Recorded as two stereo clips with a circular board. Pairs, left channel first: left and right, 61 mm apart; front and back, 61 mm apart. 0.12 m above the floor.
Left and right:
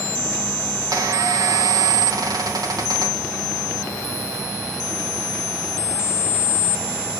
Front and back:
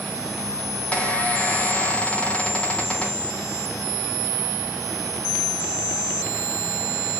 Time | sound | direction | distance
0.9 | a squeak | 70° right | 4 m